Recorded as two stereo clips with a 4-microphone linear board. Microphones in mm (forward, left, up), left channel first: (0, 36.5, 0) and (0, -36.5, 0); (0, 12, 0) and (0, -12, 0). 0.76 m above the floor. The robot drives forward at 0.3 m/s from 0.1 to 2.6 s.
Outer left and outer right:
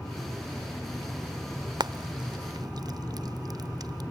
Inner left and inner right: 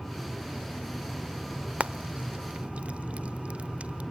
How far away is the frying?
About 1.0 m.